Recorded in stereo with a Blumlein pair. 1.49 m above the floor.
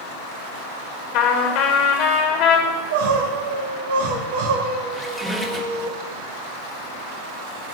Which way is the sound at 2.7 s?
55° right.